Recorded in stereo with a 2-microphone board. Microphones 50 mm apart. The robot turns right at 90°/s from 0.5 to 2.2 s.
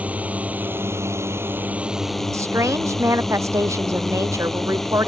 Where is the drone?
145° right; by 5.1 s 5° left.